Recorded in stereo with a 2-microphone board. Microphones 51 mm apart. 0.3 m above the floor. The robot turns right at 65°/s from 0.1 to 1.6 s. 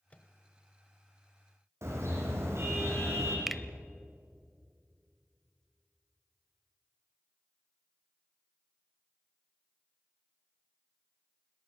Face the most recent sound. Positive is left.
turn(degrees=0)  # may be behind; listen again after turning